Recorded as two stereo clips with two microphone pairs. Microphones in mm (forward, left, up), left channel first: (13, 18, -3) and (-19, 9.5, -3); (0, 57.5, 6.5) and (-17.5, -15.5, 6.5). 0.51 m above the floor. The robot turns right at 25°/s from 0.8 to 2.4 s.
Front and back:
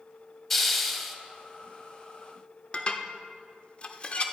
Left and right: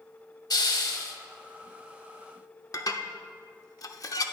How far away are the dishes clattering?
About 0.6 m.